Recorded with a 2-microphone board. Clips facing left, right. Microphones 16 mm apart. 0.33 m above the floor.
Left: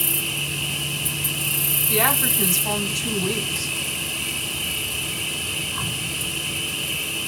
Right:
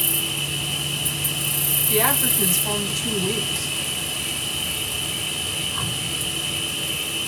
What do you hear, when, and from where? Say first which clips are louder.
0.0 s an insect: right 1 dB; 10° right (ahead or behind), 1.1 m
1.9 s a woman speaking: even; 10° left (ahead or behind), 1.3 m